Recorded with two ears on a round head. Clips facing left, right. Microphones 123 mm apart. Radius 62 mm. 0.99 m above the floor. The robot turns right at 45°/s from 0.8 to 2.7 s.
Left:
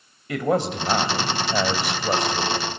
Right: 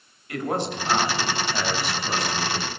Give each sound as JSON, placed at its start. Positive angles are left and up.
{"t": 0.3, "sound": "a man speaking", "azimuth_deg": 70, "distance_m": 4.0}